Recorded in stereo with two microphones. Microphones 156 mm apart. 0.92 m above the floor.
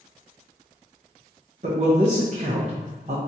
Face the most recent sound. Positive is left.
turn(degrees=-45)  # may be behind; listen again after turning